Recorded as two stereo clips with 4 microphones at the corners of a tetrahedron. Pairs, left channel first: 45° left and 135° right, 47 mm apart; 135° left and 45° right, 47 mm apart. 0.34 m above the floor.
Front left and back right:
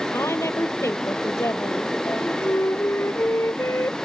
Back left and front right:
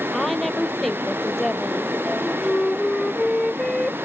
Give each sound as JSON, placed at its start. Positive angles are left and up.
{"t": 0.1, "sound": "a woman speaking", "azimuth_deg": 50}
{"t": 2.0, "sound": "a flute", "azimuth_deg": 55}